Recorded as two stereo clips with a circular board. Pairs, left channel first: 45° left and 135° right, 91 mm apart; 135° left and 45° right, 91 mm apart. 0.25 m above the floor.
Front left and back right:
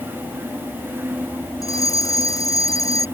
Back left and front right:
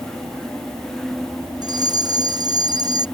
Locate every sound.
1.6 s a fire alarm: 5° right